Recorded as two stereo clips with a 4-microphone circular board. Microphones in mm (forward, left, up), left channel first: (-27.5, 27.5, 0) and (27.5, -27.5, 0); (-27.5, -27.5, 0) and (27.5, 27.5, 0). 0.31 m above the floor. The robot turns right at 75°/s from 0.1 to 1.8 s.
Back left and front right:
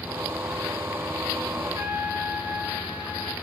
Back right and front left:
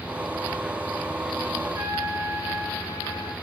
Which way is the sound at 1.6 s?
5° right.